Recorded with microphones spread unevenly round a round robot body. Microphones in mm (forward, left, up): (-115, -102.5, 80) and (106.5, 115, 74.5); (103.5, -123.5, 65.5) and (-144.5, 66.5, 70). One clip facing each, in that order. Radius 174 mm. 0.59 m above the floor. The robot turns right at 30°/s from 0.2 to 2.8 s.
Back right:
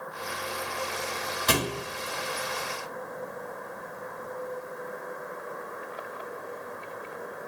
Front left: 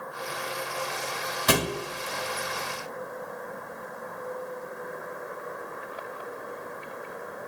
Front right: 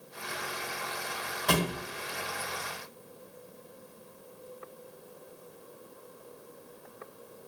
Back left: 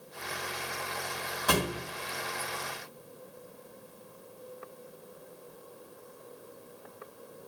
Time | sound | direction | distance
1.5 | a thud | 60° left | 1.5 m